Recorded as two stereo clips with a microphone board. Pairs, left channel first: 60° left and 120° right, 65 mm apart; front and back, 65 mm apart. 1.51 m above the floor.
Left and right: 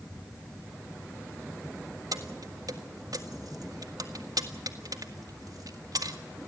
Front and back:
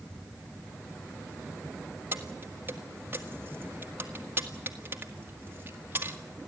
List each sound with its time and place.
2.1 s keys jangling: 125° right, 1.8 m